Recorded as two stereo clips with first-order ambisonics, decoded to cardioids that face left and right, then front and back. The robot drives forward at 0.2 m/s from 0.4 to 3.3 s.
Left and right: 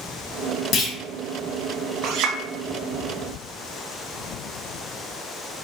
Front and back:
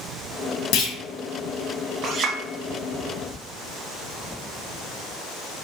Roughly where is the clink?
Behind right.